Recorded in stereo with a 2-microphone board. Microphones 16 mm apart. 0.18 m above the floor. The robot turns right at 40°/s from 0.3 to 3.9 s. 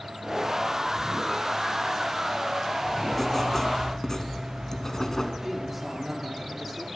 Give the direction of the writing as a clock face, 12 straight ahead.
12 o'clock.